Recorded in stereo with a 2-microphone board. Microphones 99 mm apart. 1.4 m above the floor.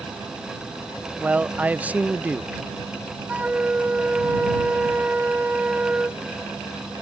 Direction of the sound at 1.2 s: 15° right (ahead or behind).